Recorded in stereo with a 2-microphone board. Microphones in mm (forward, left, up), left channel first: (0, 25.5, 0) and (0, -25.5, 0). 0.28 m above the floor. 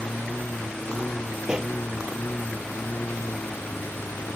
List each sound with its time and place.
0.0 s a lawn mower: 20° left (ahead or behind); by 4.4 s 35° left (ahead or behind)
1.4 s a pop: 15° right (ahead or behind)